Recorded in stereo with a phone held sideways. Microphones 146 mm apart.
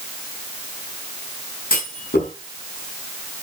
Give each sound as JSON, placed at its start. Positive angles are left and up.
{"t": 1.7, "sound": "a clunk", "side_deg": 90, "distance_m": 5.0}